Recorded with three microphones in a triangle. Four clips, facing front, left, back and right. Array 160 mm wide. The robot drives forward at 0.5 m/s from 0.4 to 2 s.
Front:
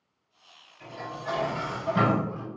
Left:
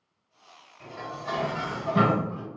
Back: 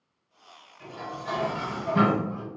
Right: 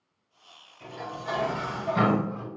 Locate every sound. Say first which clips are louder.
0.8 s dishes clattering: even, even; 105° left, 1.6 m; by 2.5 s 125° left, 1.9 m